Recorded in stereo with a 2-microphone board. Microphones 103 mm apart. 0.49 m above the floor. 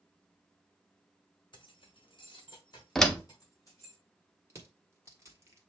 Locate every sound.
1.5 s keys jangling: 50° left (ahead or behind), 1.1 m; by 4.0 s 30° left (ahead or behind), 3 m
3.0 s a door slam: 5° left (ahead or behind), 0.6 m
4.5 s crushing: 30° right (ahead or behind), 1.3 m